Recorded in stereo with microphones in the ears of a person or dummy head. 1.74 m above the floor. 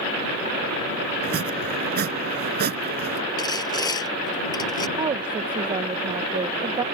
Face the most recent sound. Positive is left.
turn(degrees=-20)  # may be behind; listen again after turning